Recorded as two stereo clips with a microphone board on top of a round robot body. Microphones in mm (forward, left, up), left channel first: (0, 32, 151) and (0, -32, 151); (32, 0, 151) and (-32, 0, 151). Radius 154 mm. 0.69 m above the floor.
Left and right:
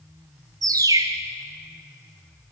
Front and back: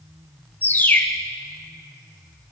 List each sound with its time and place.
0.6 s a bird: 65° right, 1.7 m